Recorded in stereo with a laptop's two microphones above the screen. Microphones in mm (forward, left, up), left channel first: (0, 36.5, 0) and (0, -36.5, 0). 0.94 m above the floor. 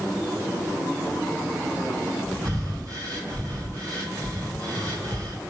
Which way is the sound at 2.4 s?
45° right (ahead or behind).